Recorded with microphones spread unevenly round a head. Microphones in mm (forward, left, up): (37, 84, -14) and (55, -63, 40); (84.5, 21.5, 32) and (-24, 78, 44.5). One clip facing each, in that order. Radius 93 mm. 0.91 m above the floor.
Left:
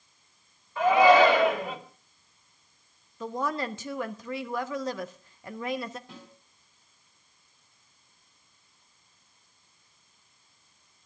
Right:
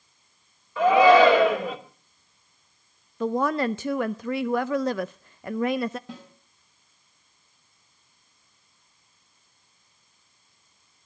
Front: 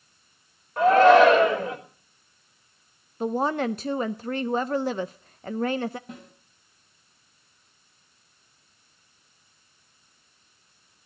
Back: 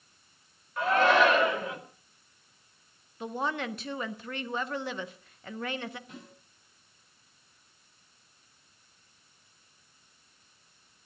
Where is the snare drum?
85° right, 3.5 m.